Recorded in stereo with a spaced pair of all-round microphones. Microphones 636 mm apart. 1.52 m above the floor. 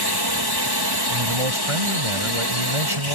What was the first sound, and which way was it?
A drone, 35° left (ahead or behind).